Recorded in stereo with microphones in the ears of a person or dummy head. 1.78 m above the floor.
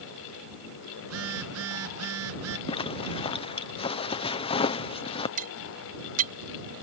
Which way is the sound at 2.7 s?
20° left (ahead or behind).